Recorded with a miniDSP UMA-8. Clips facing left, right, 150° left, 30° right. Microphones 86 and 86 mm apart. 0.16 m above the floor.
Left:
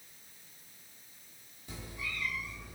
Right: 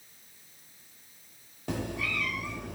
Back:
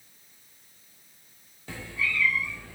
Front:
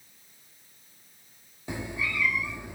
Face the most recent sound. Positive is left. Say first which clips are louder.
# right 10 dB, even
turn(degrees=-100)